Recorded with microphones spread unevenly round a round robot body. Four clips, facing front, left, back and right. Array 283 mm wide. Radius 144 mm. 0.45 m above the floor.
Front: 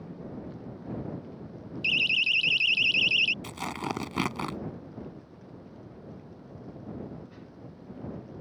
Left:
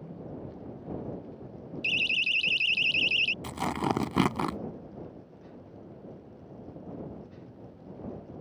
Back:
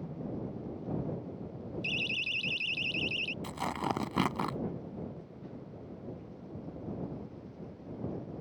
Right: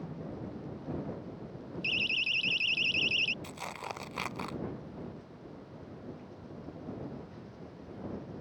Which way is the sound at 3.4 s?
80° left.